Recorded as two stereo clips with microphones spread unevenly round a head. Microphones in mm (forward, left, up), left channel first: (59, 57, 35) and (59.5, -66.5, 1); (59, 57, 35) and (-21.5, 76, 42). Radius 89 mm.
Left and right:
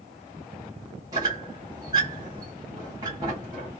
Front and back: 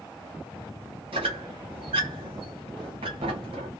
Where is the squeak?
165° right, 0.8 m.